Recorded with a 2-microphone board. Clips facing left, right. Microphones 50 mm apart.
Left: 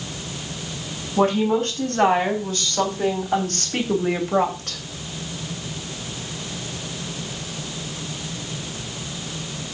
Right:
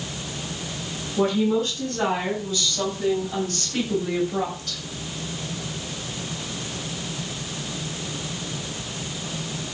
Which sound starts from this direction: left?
A woman speaking, at 1.2 s.